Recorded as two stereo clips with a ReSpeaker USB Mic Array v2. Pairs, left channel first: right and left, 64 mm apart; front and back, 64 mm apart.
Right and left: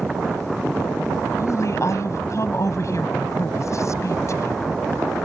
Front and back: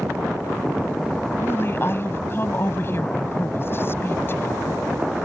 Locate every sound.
1.4 s a woman speaking: 55° right